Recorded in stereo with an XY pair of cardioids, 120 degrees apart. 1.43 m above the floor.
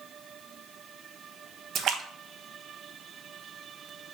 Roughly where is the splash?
Ahead right.